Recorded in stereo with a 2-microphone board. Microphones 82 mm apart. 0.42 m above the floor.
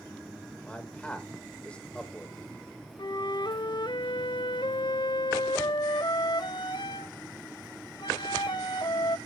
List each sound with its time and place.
0.6 s a man speaking: 15° left (ahead or behind), 1.5 m
3.0 s a flute: 70° left (ahead or behind), 0.5 m